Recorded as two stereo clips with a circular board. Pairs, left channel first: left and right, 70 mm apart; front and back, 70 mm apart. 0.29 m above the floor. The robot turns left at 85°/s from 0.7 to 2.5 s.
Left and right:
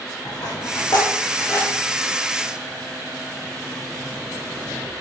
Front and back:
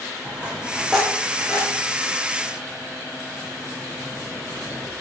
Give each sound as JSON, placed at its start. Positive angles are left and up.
{"t": 0.2, "sound": "a dropped coin", "azimuth_deg": 110, "distance_m": 4.0}